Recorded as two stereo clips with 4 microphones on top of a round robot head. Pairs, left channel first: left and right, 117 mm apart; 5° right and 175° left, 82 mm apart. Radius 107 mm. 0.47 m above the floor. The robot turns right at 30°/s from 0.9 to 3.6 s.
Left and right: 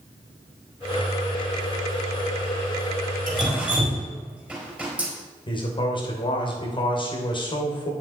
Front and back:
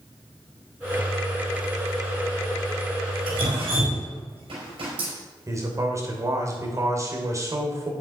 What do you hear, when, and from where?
3.3 s dripping: straight behind, 4.5 m; by 5.1 s 170° right, 4.5 m
5.5 s a man speaking: 130° left, 3 m